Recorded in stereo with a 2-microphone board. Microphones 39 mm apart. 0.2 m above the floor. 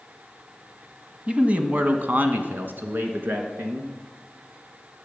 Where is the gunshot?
I don't hear a gunshot.